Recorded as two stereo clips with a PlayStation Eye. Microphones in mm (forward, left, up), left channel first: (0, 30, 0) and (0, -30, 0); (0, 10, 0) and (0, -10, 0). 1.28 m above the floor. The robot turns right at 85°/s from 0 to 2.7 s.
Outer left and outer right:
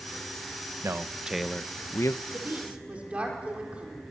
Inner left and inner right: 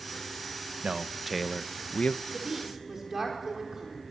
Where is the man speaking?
50° right, 0.8 m; by 2.2 s 65° left, 0.8 m.